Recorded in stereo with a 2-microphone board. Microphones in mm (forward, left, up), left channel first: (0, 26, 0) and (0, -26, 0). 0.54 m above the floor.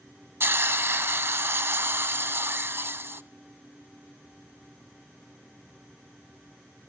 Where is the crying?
No crying in this recording.